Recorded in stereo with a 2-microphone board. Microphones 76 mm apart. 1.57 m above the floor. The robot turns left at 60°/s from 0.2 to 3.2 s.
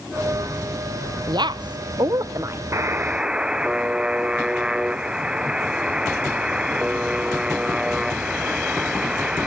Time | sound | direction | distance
1.3 | a woman speaking | 65° right (ahead or behind) | 1.0 m
2.7 | a buzzer | 40° right (ahead or behind) | 0.7 m